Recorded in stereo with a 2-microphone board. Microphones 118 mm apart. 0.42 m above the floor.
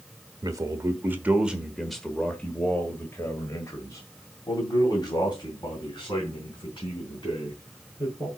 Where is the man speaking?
30° right (ahead or behind), 1.2 m; by 8.3 s 45° left (ahead or behind), 4 m.